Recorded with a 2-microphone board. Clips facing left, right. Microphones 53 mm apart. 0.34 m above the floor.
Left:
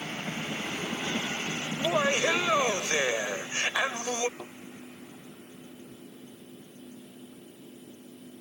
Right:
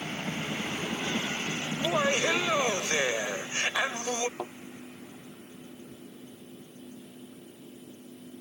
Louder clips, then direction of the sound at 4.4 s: Right 6 dB; 70° right (ahead or behind).